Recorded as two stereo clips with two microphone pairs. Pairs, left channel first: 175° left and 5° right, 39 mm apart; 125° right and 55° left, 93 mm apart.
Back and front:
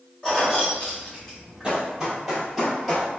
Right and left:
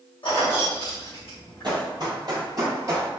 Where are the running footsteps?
60° left, 2.0 m; by 3.1 s 105° left, 1.6 m.